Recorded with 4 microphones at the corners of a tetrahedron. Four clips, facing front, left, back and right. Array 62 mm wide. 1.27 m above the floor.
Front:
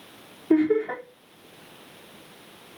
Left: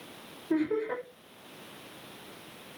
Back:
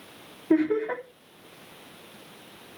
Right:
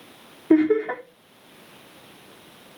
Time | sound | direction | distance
0.5 | laughter | 90° right | 4 m